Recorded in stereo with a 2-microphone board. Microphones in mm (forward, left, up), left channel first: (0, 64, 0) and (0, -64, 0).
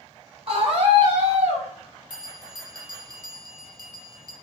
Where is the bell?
35° right (ahead or behind), 1.0 m.